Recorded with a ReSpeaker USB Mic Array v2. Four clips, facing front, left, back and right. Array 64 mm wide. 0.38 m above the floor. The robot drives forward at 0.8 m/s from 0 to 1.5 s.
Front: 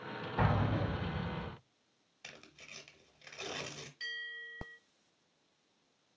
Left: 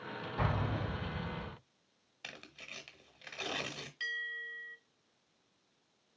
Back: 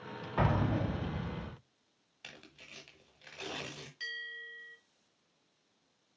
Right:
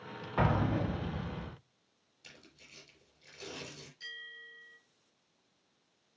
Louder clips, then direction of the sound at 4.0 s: Left 9 dB, back 1 dB; 115° left.